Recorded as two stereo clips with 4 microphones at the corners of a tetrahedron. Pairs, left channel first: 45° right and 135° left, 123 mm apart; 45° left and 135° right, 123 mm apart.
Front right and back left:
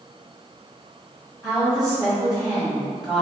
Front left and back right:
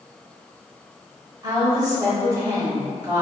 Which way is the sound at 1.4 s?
145° right.